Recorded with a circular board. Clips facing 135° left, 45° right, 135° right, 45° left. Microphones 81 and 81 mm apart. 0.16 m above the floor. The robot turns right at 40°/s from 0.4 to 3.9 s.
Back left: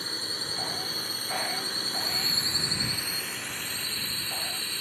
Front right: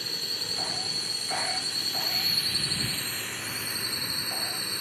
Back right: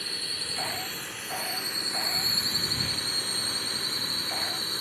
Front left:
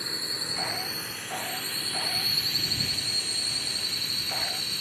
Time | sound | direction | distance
0.0 | a drone | 100° left | ?